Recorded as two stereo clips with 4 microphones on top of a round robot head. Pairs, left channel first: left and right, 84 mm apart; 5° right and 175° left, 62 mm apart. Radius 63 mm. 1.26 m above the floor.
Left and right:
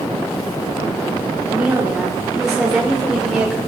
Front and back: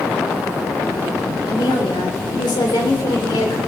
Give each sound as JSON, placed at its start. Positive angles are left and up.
{"t": 1.5, "sound": "a woman speaking", "azimuth_deg": -15, "distance_m": 3.5}